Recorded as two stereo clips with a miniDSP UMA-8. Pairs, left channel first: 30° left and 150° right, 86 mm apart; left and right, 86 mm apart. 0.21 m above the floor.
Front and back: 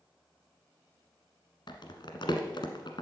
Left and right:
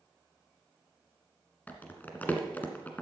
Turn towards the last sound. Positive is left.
turn(degrees=25)